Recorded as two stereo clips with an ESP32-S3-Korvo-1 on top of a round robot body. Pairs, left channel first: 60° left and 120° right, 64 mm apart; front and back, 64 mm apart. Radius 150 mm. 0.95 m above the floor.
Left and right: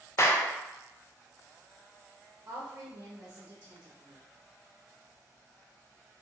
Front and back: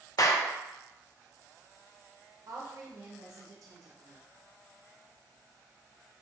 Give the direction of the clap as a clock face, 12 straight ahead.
11 o'clock.